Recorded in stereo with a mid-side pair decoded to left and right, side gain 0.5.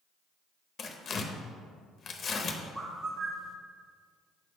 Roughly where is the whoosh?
No whoosh in this recording.